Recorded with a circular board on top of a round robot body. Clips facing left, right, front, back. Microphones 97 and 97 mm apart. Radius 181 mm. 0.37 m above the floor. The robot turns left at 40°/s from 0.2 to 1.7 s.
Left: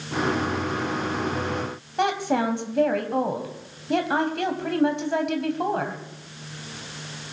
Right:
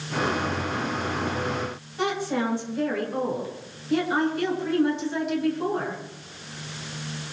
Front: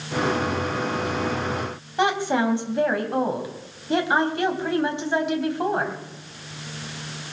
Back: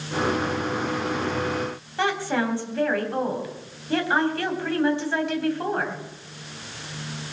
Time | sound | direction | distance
2.0 | a woman speaking | 70° left | 3.5 m